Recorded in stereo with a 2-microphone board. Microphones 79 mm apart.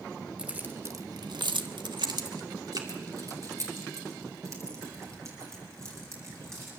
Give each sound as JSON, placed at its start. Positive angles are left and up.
{"t": 0.4, "sound": "keys jangling", "side_deg": -15, "distance_m": 1.6}